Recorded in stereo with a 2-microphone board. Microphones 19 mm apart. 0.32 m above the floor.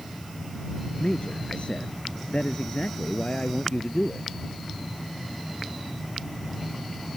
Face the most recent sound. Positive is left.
turn(degrees=65)  # may be behind; listen again after turning